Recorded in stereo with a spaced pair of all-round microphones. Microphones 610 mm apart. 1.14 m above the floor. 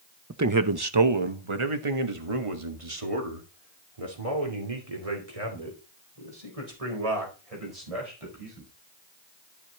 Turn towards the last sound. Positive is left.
turn(degrees=-80)